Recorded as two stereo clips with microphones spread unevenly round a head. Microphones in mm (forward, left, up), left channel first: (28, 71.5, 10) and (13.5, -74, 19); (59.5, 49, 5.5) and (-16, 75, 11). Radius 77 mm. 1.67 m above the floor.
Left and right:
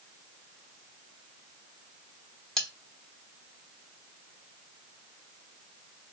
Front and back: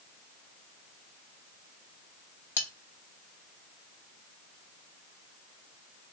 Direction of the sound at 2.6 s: 5° right.